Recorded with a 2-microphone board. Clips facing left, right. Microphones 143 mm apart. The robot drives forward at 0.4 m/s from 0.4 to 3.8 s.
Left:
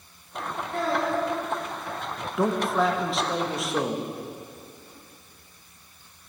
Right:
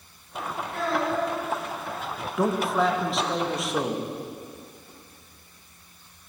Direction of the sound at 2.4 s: Centre (ahead or behind).